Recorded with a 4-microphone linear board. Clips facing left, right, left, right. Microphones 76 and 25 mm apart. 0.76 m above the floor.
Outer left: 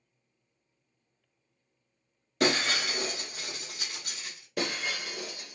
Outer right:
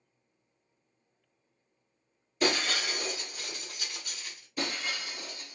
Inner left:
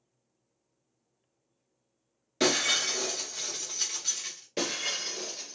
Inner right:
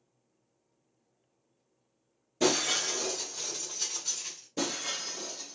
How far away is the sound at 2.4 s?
About 2.5 m.